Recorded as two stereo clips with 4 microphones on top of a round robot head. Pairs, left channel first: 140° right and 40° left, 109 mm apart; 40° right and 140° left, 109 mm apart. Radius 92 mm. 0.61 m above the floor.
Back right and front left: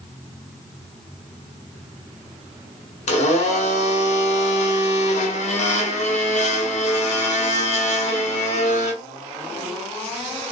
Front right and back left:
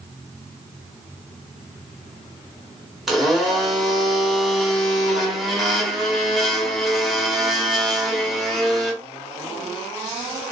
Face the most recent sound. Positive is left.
turn(degrees=-130)